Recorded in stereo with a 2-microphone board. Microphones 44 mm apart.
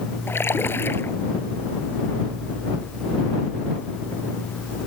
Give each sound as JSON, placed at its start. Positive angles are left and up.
{"t": 0.3, "sound": "a splash", "side_deg": 65}